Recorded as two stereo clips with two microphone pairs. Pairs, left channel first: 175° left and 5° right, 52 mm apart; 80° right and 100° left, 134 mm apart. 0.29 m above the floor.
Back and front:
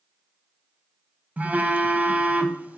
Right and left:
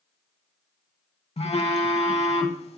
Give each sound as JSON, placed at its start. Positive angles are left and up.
{"t": 1.4, "sound": "a phone buzzing", "azimuth_deg": -60, "distance_m": 0.8}